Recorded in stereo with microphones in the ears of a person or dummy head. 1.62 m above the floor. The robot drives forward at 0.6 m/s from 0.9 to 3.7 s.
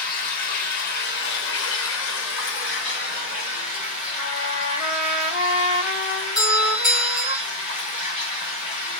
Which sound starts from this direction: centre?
A doorbell, at 6.3 s.